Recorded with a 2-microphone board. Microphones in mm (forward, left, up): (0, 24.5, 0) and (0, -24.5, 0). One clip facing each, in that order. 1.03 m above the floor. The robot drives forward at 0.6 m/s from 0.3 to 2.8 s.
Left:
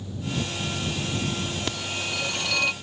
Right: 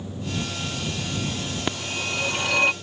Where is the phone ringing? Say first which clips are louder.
Right 2 dB; 20° right (ahead or behind); by 2.7 s 30° right (ahead or behind).